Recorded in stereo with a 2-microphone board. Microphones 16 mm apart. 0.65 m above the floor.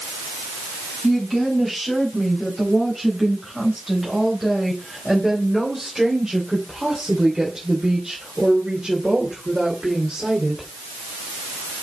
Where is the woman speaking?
10° left (ahead or behind), 5 m; by 10.7 s 60° right (ahead or behind), 3 m.